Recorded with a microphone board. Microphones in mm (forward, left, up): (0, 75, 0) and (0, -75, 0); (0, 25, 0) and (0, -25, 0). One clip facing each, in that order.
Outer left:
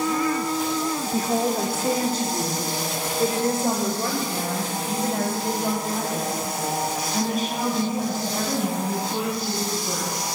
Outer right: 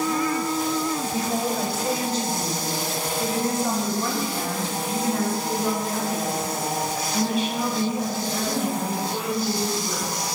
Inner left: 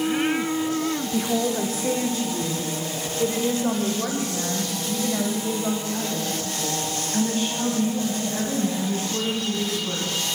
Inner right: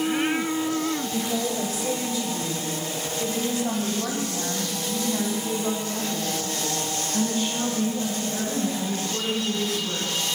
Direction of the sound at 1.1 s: 50° left (ahead or behind).